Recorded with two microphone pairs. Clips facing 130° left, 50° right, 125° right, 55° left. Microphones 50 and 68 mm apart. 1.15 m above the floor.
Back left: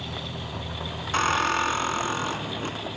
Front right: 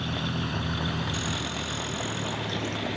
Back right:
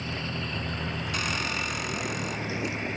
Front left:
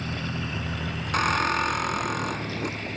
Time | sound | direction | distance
0.0 | a vehicle | 10° right | ?
1.1 | a squeak | 100° left | ?